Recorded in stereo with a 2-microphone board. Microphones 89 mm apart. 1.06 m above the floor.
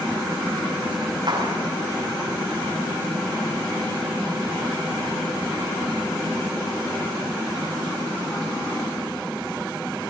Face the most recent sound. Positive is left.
turn(degrees=-55)  # may be behind; listen again after turning